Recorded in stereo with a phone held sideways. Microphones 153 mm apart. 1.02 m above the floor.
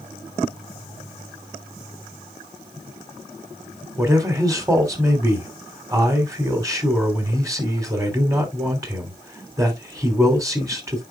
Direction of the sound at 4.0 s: 20° right (ahead or behind).